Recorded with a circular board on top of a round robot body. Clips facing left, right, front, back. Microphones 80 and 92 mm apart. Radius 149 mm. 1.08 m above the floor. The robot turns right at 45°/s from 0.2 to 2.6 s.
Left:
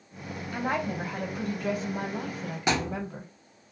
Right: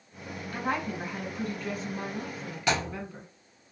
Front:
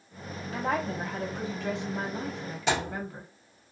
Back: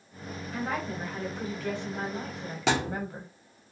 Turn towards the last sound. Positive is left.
turn(degrees=165)